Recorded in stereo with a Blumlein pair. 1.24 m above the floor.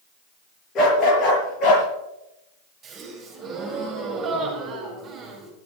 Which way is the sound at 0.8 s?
30° left.